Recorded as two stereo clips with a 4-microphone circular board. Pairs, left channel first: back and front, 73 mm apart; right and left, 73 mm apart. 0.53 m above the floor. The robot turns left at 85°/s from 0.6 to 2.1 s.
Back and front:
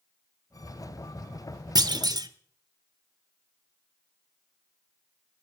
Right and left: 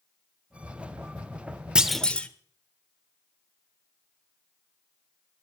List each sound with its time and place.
1.8 s a clunk: 15° left, 0.8 m; by 2.3 s 15° right, 0.8 m